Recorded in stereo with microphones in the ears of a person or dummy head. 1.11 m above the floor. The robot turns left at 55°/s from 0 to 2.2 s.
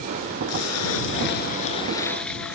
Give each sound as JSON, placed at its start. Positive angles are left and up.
{"t": 0.5, "sound": "a splash", "azimuth_deg": 100}